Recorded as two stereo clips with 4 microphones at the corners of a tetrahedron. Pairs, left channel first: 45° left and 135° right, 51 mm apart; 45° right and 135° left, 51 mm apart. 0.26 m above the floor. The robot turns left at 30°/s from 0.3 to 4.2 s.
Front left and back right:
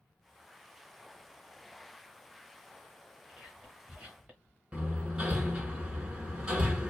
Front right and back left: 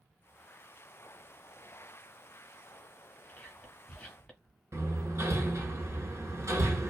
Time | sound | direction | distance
3.3 | whispering | 75° right | 1.2 m
4.7 | hammering | 155° left | 0.7 m